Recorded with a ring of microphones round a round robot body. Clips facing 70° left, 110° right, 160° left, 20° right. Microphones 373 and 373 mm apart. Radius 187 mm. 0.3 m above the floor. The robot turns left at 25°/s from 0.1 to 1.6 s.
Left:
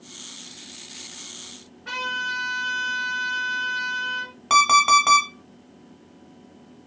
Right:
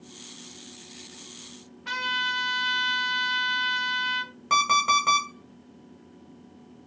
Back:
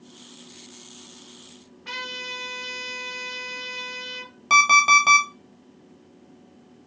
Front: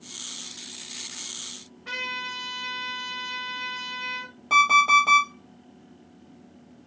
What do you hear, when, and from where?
1.9 s a trumpet: 125° right, 0.7 m
4.5 s an alarm clock: 125° left, 0.9 m